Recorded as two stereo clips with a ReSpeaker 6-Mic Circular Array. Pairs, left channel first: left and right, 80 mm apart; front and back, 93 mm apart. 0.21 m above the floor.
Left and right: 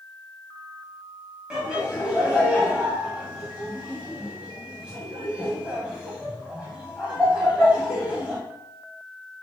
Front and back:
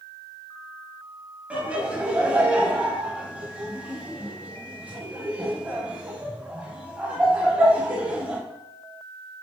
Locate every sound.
1.5 s laughter: 145° right, 1.0 m